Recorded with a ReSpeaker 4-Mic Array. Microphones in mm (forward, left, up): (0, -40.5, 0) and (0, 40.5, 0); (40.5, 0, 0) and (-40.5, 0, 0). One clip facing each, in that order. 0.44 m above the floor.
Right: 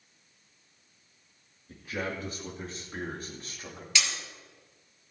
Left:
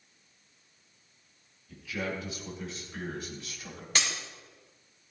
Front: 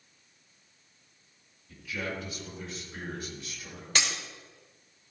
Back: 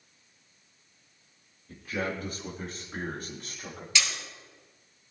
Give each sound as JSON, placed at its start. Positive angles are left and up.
{"t": 1.7, "sound": "a man speaking", "azimuth_deg": -135, "distance_m": 6.5}
{"t": 4.0, "sound": "breaking glass", "azimuth_deg": 45, "distance_m": 3.5}